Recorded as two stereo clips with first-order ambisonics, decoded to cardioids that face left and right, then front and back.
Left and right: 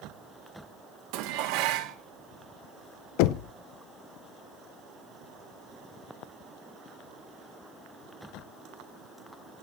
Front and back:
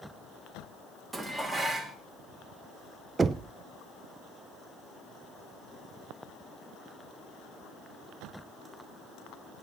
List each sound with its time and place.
1.1 s dishes clattering: 95° right, 1.3 m
3.2 s knocking: 105° left, 0.5 m